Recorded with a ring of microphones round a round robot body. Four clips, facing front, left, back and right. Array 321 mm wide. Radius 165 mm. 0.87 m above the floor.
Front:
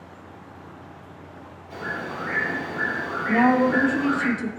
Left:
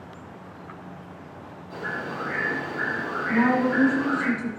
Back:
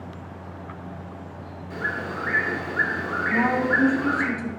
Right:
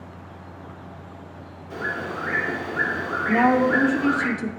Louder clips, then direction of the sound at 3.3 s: Right 3 dB, front 5 dB; 55° right.